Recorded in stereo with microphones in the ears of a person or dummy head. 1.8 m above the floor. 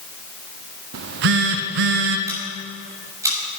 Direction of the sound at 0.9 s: 60° right (ahead or behind).